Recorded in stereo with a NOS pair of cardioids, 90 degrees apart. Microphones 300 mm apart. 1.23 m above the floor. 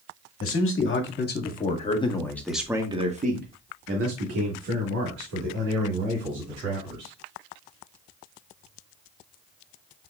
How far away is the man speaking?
About 1.6 m.